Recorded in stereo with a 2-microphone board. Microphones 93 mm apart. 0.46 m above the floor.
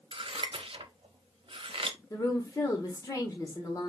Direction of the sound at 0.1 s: 75° right (ahead or behind).